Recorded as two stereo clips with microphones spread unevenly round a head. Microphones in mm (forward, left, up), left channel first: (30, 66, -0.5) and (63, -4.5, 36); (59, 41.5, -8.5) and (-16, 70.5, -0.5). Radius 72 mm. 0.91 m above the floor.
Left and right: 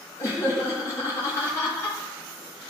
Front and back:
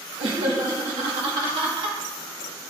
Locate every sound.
0.2 s laughter: 155° left, 1.6 m